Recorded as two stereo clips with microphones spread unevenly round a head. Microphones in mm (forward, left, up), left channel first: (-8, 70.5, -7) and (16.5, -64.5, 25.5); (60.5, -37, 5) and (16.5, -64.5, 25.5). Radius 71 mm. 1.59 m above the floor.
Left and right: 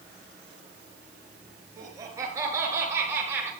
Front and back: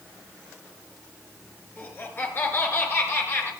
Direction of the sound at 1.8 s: 10° right.